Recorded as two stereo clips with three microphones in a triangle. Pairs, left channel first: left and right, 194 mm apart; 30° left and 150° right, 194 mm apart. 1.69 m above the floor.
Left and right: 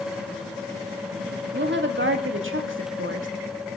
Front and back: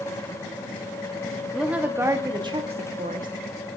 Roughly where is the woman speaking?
Ahead right.